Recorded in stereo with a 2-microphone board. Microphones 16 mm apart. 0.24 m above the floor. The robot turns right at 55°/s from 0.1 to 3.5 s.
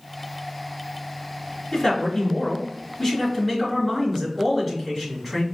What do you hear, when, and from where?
1.7 s a man speaking: 85° left, 2.0 m; by 5.4 s 175° right, 2.0 m